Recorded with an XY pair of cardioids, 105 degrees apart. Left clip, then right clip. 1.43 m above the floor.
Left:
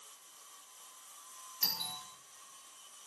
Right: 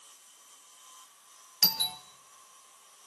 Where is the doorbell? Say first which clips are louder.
Right 9 dB; 65° right, 1.2 m.